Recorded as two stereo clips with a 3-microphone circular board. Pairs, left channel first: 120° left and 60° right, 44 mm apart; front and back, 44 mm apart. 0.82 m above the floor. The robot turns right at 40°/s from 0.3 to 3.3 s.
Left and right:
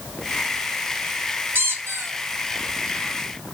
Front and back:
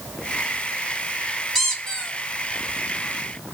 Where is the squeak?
90° right, 0.7 m; by 2.1 s 70° right, 0.7 m.